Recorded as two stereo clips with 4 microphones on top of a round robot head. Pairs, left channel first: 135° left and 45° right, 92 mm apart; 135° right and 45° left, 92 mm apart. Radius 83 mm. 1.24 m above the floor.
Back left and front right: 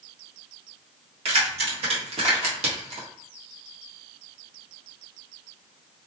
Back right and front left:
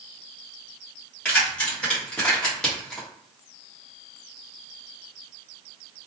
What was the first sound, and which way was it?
Keys jangling, 60° right.